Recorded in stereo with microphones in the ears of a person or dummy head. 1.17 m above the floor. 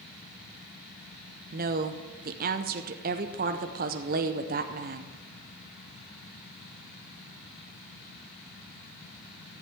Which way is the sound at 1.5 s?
40° right (ahead or behind).